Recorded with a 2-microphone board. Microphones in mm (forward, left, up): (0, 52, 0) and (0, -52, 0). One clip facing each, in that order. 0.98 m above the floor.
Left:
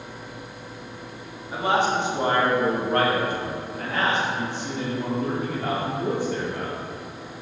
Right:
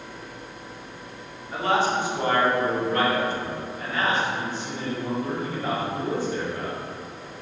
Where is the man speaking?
10° left (ahead or behind), 2.5 m; by 6.8 s 60° left (ahead or behind), 4 m.